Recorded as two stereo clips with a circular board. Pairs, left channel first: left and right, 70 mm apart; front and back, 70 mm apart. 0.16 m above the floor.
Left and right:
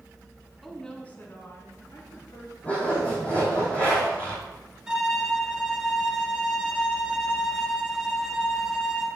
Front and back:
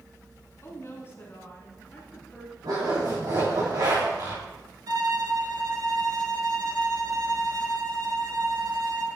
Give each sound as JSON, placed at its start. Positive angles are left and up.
{"t": 0.6, "sound": "a woman speaking", "azimuth_deg": 0, "distance_m": 1.6}
{"t": 2.6, "sound": "a zipper", "azimuth_deg": 160, "distance_m": 4.5}
{"t": 4.9, "sound": "a violin", "azimuth_deg": -170, "distance_m": 1.2}